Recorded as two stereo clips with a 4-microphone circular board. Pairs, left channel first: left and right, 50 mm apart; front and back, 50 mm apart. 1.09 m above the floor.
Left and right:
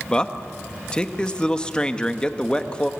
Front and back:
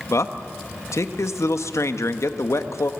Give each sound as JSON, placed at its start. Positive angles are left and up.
{"t": 0.1, "sound": "a man speaking", "azimuth_deg": 15, "distance_m": 1.1}